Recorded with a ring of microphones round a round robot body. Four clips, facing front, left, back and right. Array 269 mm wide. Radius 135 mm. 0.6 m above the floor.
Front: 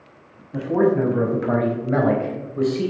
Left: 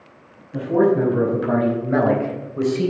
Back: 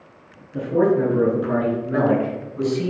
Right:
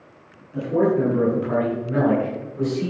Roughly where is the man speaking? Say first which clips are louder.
Left 3 dB, even; ahead left.